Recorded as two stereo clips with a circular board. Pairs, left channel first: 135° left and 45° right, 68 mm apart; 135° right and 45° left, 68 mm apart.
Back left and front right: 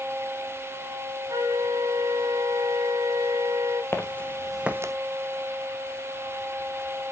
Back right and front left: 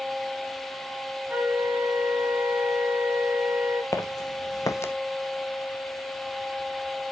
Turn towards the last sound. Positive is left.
turn(degrees=-75)